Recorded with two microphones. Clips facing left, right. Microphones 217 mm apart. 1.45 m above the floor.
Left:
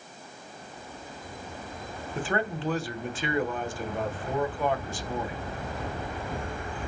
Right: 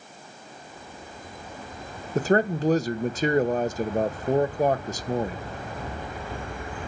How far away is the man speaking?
About 1.1 m.